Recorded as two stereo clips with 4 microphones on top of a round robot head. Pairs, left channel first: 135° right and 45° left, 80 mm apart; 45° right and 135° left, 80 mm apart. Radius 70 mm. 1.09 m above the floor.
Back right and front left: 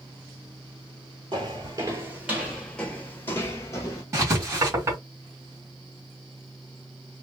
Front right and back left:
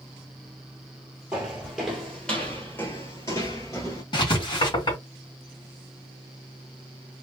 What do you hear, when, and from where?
1.3 s footsteps: 60° left, 1.2 m; by 4.0 s 95° right, 1.4 m
4.1 s writing: 10° right, 2 m